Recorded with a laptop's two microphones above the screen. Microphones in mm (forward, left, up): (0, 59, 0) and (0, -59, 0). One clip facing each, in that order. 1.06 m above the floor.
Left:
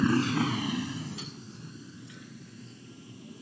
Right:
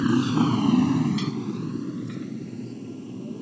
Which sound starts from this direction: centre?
A motorcycle, at 0.0 s.